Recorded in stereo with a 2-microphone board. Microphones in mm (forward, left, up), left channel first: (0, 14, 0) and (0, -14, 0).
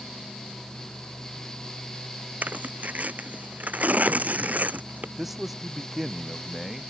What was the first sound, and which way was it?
Tearing paper, 60° right (ahead or behind).